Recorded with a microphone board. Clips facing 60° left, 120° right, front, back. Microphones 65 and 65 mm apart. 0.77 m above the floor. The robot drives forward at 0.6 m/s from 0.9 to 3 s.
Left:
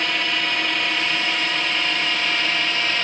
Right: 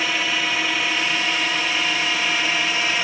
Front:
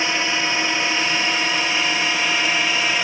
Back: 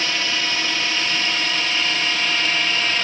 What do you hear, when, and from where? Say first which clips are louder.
0.0 s a drone: even, front 2 dB; 40° right; by 3.0 s 55° right